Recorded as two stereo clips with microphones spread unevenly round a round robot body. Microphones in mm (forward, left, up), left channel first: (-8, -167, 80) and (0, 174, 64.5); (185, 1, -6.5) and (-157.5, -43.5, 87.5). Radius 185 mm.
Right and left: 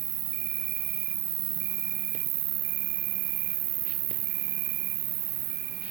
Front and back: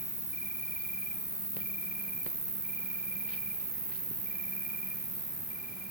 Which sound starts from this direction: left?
An insect, at 0.0 s.